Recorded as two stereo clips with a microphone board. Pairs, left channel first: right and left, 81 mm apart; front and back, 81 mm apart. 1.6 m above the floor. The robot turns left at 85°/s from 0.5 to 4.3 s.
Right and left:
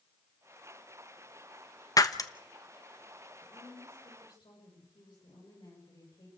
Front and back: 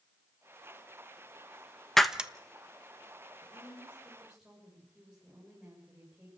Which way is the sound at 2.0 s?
85° right.